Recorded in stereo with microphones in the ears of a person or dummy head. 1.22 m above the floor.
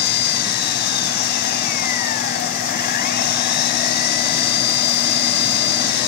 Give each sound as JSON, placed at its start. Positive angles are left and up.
{"t": 0.0, "sound": "an engine running", "side_deg": 50}